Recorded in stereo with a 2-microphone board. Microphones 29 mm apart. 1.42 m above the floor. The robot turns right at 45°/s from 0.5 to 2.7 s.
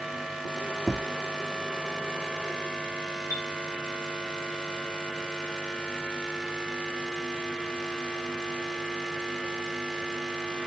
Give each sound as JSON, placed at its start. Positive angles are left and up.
{"t": 0.9, "sound": "tapping", "side_deg": -10, "distance_m": 0.6}
{"t": 3.3, "sound": "a chime", "side_deg": 85, "distance_m": 1.5}